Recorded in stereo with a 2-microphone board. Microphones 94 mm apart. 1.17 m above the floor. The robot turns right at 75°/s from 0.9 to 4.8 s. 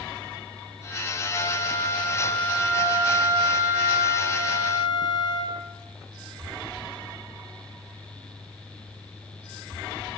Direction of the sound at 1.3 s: 30° left.